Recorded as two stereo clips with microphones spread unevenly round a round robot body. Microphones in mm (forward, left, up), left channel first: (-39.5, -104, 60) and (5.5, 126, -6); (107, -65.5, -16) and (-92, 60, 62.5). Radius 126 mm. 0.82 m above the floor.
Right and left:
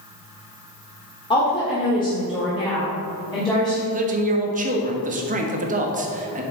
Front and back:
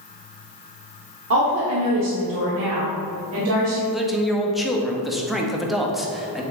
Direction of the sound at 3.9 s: 45° left.